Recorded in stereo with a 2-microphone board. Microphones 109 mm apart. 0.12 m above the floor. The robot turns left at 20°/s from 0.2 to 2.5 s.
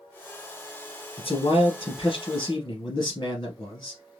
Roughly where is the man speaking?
Left.